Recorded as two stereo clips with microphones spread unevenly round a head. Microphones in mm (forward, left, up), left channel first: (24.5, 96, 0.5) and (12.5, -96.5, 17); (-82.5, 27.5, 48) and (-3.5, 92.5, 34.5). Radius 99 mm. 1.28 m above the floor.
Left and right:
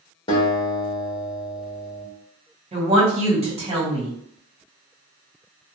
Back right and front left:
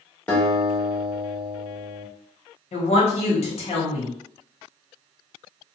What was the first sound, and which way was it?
A guitar, 150° left.